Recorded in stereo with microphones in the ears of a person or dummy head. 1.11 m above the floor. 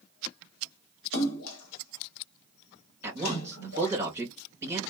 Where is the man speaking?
20° right (ahead or behind), 1.8 m.